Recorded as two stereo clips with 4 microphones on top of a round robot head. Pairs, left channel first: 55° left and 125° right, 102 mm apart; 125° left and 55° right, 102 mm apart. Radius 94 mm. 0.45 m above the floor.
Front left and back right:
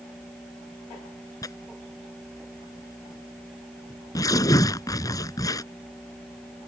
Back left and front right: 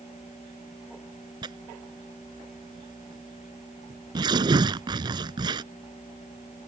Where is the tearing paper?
5° right.